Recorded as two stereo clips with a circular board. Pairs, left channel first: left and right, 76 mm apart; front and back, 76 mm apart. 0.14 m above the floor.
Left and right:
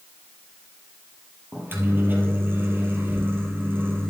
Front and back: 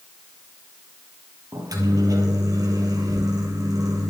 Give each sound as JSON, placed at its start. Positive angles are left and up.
{"t": 1.5, "sound": "a microwave", "azimuth_deg": -150, "distance_m": 3.5}